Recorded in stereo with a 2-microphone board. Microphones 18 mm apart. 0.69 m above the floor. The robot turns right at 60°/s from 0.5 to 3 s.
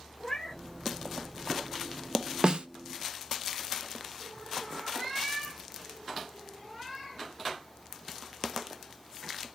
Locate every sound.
0.2 s a cat meowing: 30° left (ahead or behind), 0.7 m; by 0.6 s 25° left (ahead or behind), 0.7 m
2.4 s a snare drum: 50° right (ahead or behind), 0.5 m; by 2.7 s 60° right (ahead or behind), 0.5 m